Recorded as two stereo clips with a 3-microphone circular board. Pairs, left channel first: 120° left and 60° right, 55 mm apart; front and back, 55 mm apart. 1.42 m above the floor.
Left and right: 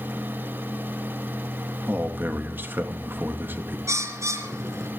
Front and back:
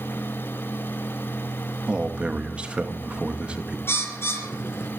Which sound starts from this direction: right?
A man speaking, at 1.9 s.